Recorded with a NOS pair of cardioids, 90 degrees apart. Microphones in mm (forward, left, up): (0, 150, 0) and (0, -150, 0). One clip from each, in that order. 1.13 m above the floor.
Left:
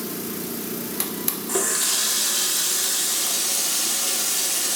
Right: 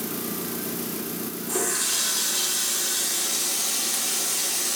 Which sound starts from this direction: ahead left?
A running tap, at 1.5 s.